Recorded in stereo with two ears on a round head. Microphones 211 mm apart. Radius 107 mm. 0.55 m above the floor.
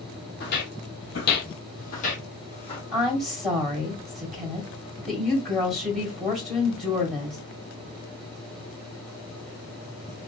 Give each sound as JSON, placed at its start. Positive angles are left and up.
{"t": 0.4, "sound": "footsteps", "side_deg": 45, "distance_m": 0.8}
{"t": 2.9, "sound": "a woman speaking", "side_deg": 0, "distance_m": 2.5}